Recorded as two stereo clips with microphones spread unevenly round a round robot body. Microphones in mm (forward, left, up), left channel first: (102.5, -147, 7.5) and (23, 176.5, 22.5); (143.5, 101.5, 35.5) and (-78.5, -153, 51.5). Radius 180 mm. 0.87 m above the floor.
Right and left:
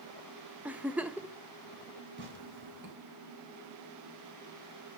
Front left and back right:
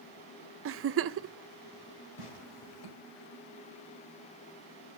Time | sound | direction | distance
0.7 | a giggle | 170° right | 0.5 m
2.2 | tearing paper | 45° left | 4 m